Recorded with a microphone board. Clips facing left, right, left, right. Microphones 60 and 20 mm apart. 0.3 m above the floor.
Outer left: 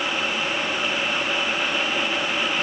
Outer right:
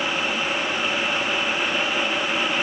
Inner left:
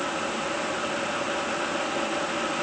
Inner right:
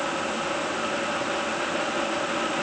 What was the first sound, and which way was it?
Only background noise.